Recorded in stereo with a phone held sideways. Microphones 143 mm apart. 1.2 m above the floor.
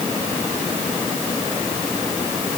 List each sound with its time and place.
Only background noise.